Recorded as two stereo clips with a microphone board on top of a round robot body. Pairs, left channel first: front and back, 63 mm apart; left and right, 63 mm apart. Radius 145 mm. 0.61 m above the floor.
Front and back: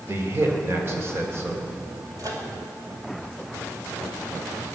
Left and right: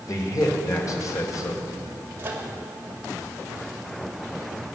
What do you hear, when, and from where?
0.1 s a man speaking: 130° left, 2.5 m
2.2 s a microwave: 150° right, 2.5 m